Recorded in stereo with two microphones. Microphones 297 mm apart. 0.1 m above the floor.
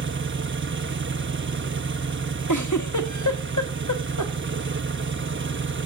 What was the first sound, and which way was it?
An engine running, 40° right (ahead or behind).